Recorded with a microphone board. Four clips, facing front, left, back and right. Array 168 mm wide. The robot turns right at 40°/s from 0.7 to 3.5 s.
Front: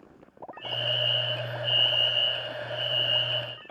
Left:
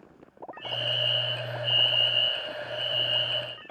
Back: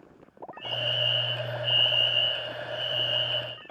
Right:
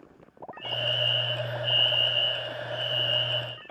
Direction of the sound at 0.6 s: 145° left.